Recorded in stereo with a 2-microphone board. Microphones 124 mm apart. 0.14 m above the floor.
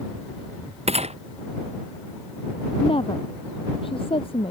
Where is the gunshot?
55° right (ahead or behind).